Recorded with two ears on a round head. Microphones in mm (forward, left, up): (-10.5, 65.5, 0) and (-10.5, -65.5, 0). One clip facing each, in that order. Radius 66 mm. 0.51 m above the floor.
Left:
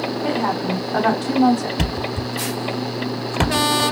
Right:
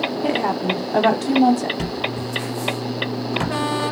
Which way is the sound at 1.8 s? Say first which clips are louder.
Left 1 dB; 65° left (ahead or behind).